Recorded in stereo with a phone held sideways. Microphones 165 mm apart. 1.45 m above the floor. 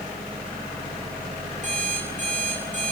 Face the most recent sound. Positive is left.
turn(degrees=-50)  # may be behind; listen again after turning